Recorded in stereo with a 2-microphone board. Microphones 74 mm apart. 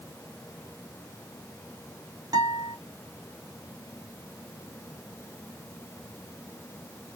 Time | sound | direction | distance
2.3 | a guitar | 60° right (ahead or behind) | 1.8 m